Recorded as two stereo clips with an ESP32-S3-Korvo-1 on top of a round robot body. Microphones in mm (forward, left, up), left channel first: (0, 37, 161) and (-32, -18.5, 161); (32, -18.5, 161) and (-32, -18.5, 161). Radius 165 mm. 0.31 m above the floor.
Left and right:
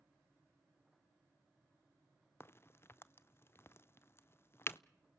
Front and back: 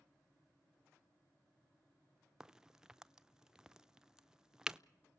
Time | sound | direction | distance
2.4 | a crack | 100° left | 0.7 m